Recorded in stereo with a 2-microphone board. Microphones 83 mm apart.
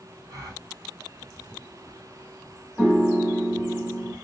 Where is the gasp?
55° right (ahead or behind), 2 m.